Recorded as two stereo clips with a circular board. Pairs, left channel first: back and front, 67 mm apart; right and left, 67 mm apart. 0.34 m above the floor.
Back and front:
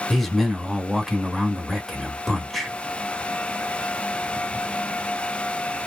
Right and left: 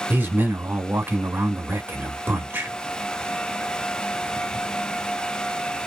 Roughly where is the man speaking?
Left.